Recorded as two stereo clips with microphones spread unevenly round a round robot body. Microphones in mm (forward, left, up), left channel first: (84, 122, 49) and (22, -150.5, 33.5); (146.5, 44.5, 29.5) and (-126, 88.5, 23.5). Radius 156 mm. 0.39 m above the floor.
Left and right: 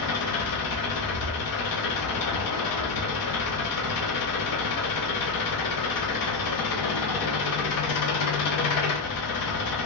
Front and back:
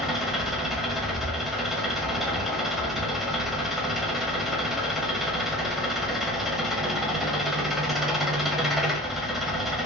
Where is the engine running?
80° left, 0.9 m.